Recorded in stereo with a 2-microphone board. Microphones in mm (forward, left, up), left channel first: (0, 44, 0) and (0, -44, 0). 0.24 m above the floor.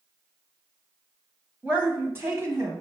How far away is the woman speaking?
About 1.0 m.